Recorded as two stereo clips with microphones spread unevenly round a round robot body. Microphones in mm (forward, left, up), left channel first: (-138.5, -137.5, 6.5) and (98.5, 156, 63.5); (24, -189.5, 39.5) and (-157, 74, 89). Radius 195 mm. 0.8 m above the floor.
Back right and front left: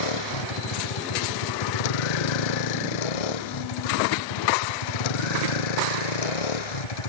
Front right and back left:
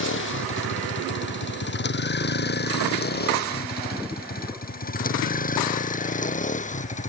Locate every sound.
0.0 s a vehicle: 110° right; by 7.1 s 125° right